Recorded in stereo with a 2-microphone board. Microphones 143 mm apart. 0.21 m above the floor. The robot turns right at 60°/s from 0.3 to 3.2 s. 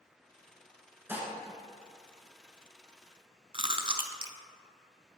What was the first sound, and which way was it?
Dishes clattering, 15° right (ahead or behind).